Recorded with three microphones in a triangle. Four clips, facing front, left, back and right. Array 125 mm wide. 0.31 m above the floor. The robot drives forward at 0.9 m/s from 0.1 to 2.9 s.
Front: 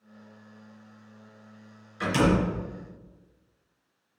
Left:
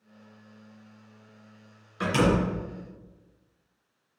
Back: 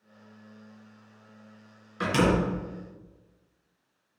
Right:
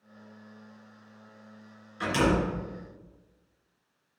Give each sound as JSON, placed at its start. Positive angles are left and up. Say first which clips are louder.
{"t": 2.0, "sound": "a door slam", "louder": "left 2 dB, even", "azimuth_deg": 145, "distance_m": 3.0}